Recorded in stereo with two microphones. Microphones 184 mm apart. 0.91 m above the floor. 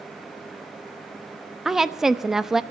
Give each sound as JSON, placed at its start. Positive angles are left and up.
{"t": 1.6, "sound": "a woman speaking", "side_deg": 0, "distance_m": 1.0}